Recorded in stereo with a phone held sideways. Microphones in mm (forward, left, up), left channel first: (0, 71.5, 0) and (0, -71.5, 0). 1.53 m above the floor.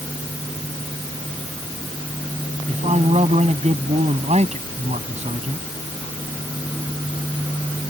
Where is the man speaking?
50° right (ahead or behind).